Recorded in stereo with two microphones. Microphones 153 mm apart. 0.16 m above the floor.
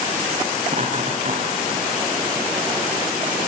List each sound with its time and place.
0.7 s laughter: 45° right (ahead or behind), 2.5 m